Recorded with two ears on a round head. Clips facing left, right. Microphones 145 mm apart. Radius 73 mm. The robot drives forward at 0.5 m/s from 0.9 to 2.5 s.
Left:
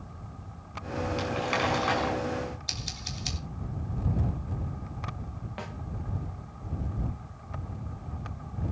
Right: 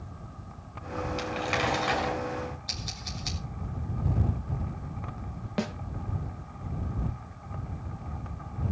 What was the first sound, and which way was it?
Crumpling, centre (ahead or behind).